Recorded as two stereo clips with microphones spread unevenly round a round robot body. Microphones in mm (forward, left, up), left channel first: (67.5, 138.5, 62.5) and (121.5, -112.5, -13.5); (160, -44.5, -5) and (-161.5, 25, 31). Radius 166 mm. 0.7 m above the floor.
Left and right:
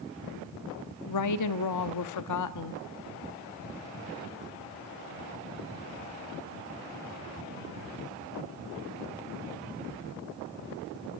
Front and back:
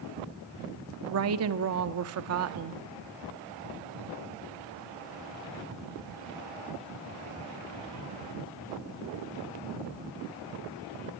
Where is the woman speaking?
125° left, 1.4 m.